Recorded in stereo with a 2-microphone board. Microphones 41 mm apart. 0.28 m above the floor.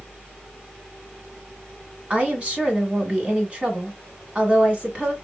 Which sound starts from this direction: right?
A woman speaking, at 2.1 s.